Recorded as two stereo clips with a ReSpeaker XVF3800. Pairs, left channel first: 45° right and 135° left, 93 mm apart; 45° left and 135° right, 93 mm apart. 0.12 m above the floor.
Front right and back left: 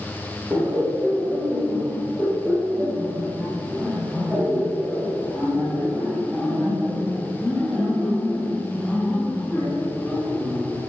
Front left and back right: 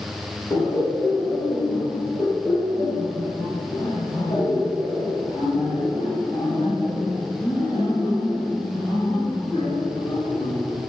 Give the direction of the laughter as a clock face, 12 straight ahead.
9 o'clock.